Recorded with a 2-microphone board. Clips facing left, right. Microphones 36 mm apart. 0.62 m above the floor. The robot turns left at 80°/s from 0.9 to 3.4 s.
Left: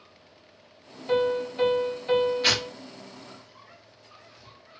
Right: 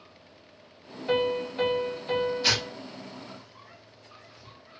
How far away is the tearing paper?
About 1.1 m.